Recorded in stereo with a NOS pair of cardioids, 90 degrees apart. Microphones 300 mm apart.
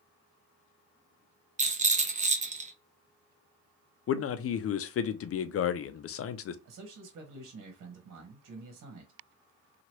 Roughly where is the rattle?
Ahead right.